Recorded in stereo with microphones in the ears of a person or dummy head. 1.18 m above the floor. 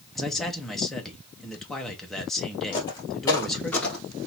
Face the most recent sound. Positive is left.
turn(degrees=5)  # may be behind; listen again after turning